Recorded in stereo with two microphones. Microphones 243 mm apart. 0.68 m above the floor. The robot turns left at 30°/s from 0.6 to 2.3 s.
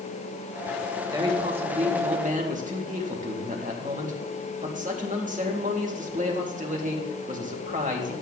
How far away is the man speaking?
About 1.4 m.